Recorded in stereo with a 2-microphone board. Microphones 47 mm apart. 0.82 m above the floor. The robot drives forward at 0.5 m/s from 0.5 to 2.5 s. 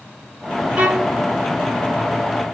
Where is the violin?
30° right (ahead or behind), 0.8 m; by 1.2 s 35° right (ahead or behind), 0.6 m.